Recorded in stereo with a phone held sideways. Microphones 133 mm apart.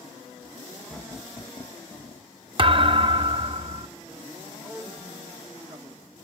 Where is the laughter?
Centre (ahead or behind), 0.9 m; by 2.3 s 50° left (ahead or behind), 0.6 m.